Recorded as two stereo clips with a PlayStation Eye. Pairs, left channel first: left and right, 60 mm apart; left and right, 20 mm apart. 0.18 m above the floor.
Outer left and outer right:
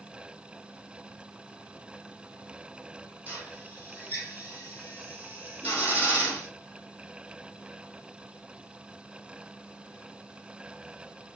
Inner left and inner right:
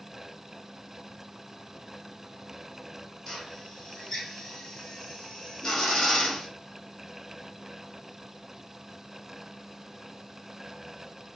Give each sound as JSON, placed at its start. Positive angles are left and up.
{"t": 3.3, "sound": "a drill", "side_deg": 30, "distance_m": 1.9}